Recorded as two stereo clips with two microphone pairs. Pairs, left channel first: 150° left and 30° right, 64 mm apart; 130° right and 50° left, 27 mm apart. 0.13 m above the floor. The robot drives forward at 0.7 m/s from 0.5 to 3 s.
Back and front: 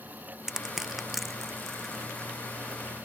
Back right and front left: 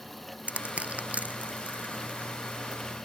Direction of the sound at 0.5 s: 50° left.